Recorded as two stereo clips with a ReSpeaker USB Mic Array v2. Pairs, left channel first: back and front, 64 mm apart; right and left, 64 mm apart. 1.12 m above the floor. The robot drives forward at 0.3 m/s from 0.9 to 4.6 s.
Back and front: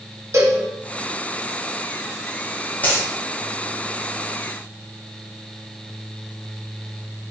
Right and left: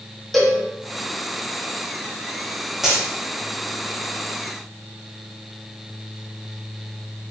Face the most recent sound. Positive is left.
turn(degrees=175)